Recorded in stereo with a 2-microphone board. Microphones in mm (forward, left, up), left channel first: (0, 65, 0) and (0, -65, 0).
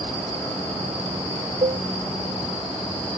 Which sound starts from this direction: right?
A cowbell, at 1.6 s.